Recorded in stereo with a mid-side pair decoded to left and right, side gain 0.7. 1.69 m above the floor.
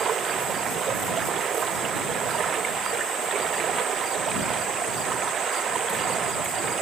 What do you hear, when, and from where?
0.0 s running water: 35° right